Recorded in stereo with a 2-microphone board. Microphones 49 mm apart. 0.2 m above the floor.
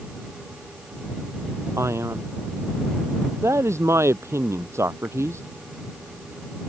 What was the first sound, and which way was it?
A man speaking, 75° right (ahead or behind).